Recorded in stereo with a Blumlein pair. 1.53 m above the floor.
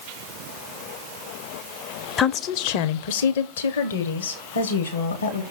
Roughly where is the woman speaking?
Ahead.